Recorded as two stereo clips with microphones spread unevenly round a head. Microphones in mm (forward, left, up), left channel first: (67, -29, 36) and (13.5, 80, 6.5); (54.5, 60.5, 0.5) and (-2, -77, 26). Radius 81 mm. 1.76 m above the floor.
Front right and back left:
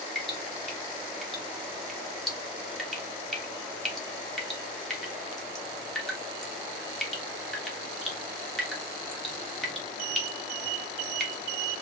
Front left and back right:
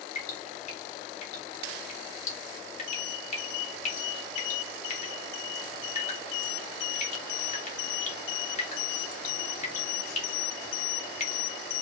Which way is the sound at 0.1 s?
20° left.